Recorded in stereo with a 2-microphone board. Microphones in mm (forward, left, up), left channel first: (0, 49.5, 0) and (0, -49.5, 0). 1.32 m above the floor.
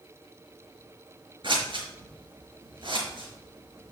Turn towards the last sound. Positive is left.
turn(degrees=-60)  # may be behind; listen again after turning